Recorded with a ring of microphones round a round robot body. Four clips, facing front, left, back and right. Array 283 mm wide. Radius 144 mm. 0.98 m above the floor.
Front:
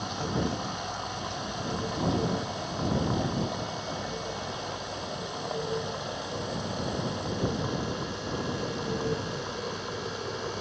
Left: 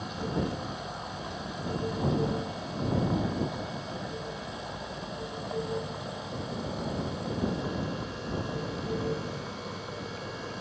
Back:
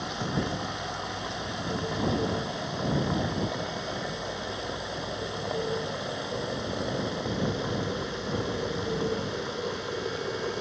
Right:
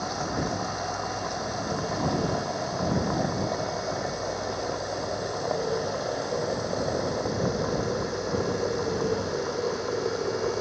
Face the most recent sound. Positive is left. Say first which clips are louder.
# right 3 dB, even
turn(degrees=-105)